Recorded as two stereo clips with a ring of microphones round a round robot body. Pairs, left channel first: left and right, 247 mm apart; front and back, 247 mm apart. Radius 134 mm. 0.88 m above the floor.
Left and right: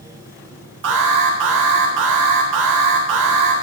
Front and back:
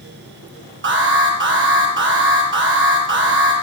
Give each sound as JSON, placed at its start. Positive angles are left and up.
{"t": 0.8, "sound": "an alarm", "azimuth_deg": -140, "distance_m": 6.5}